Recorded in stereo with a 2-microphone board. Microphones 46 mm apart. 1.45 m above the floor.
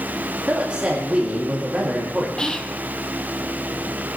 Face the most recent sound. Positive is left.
turn(degrees=15)  # may be behind; listen again after turning